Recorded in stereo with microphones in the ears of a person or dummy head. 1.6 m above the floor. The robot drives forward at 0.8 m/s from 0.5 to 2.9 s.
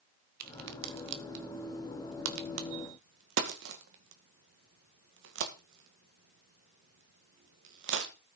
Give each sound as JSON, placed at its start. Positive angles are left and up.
{"t": 0.4, "sound": "a crack", "side_deg": -50, "distance_m": 2.0}